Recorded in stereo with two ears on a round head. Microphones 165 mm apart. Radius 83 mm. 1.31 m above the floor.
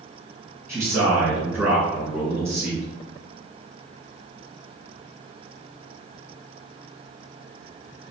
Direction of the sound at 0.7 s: 15° right (ahead or behind).